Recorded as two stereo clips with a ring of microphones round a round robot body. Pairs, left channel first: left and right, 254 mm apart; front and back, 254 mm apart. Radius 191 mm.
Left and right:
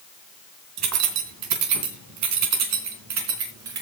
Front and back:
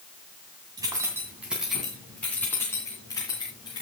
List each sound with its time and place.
0.8 s keys jangling: 100° right, 2.0 m; by 3.8 s 75° right, 3.5 m